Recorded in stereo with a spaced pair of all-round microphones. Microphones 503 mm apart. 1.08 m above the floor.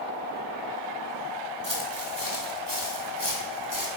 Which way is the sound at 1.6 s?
45° left (ahead or behind).